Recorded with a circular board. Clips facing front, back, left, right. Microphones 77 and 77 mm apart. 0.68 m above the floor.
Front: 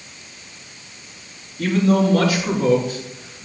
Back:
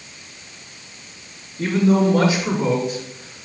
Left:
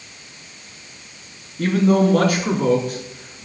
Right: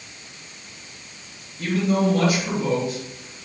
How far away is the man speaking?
About 7.5 m.